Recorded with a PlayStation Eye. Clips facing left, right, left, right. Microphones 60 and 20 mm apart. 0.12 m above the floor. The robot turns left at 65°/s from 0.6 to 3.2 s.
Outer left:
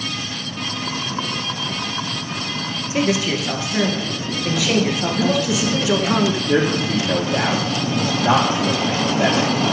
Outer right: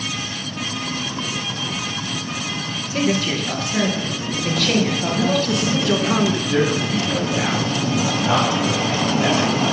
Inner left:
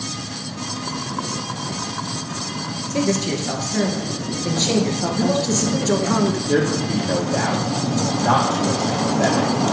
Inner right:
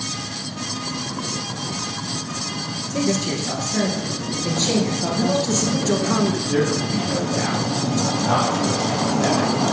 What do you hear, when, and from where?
2.9 s a man speaking: 20° left (ahead or behind), 2 m; by 6.2 s 5° left (ahead or behind), 2 m
5.2 s a man speaking: 5° left (ahead or behind), 1.1 m
6.5 s a man speaking: 40° left (ahead or behind), 4.5 m